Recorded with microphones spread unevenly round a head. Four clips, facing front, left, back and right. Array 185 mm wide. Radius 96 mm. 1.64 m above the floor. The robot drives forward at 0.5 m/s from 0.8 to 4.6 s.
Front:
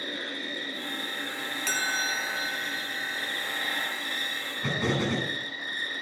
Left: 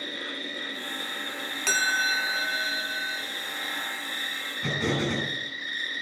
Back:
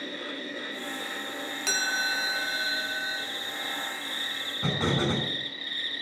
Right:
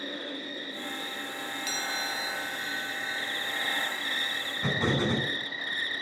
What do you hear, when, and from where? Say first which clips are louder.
0.0 s an insect: even, even; 20° right, 2.5 m; by 6.0 s 75° right, 0.9 m
1.7 s a chime: left 10 dB, back 1 dB; 90° left, 1.1 m; by 3.3 s 130° left, 1.4 m
4.6 s an explosion: even, back 1 dB; 165° right, 6 m